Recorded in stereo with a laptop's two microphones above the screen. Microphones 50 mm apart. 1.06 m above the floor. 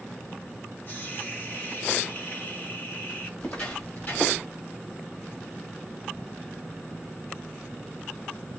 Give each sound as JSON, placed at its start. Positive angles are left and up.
{"t": 0.9, "sound": "a hiss", "side_deg": 40, "distance_m": 1.0}
{"t": 3.4, "sound": "footsteps", "side_deg": 25, "distance_m": 1.4}